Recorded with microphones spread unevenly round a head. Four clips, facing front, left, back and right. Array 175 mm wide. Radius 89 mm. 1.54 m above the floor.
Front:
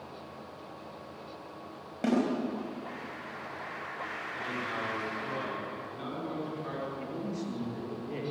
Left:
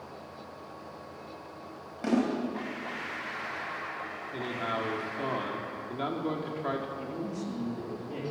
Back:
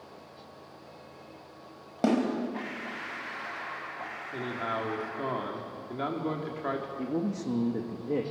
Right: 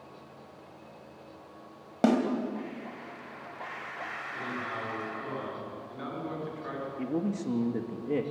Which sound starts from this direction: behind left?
A man speaking, at 4.3 s.